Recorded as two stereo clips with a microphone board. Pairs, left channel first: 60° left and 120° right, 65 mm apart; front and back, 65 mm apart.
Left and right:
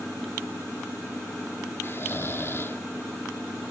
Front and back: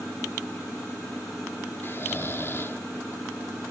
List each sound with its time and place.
1.8 s snoring: 30° left, 1.0 m